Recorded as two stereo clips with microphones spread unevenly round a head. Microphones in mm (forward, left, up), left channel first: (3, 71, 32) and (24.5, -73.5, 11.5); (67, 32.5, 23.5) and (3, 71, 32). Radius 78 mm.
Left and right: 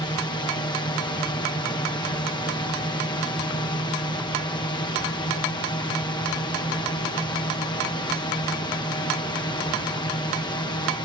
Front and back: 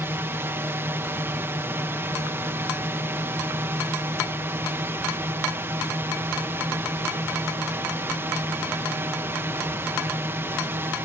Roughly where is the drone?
Behind left.